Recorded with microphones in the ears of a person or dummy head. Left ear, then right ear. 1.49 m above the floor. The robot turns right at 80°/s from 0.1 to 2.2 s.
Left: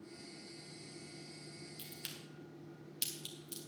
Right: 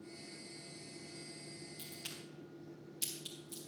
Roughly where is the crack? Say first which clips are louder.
Even; centre.